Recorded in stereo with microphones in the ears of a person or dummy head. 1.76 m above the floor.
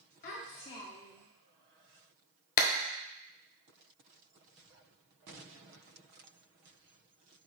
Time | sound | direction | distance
0.2 | a child speaking | 40° left (ahead or behind) | 0.7 m
2.6 | a clap | 50° left (ahead or behind) | 0.5 m